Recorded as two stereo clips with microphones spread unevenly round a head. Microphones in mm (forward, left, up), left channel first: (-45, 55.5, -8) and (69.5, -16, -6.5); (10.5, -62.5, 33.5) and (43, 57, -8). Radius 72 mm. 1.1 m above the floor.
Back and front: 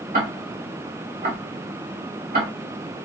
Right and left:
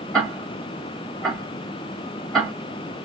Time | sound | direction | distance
0.1 | ticking | 15° right | 2.0 m